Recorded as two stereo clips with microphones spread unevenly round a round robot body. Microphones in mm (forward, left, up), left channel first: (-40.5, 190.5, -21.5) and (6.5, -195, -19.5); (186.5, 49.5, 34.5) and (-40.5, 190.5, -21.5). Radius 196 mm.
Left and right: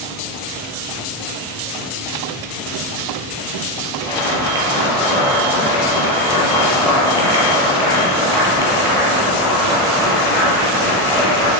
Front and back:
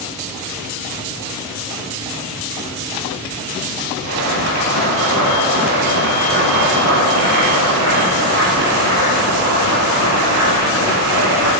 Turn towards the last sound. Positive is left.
turn(degrees=180)